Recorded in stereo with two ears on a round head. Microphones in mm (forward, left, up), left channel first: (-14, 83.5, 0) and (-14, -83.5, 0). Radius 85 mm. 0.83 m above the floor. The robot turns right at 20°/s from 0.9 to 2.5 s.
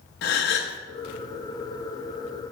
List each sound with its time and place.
0.2 s a gasp: 60° left (ahead or behind), 0.6 m